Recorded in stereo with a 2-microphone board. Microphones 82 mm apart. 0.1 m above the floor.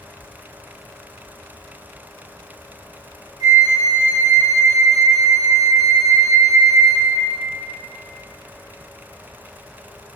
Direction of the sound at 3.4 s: 45° right (ahead or behind).